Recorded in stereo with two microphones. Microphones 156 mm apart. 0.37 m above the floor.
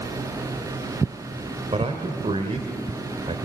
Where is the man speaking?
40° right (ahead or behind), 1.6 m.